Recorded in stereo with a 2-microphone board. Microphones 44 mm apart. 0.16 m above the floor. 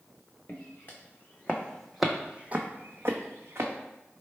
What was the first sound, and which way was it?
Footsteps, 40° left (ahead or behind).